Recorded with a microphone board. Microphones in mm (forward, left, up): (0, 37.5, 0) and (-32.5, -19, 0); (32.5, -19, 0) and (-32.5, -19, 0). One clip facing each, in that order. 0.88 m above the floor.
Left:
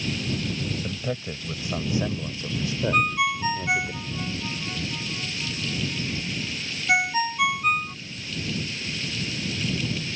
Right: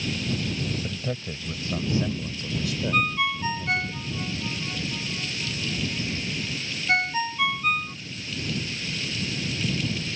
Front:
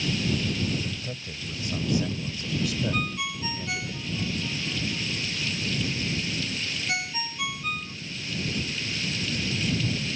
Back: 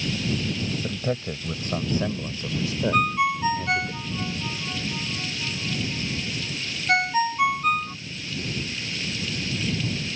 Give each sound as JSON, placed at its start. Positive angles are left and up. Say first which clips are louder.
{"t": 0.8, "sound": "a man speaking", "louder": "left 1 dB, back 8 dB", "azimuth_deg": 140}
{"t": 2.9, "sound": "a ringtone", "louder": "left 1 dB, back 9 dB", "azimuth_deg": 140}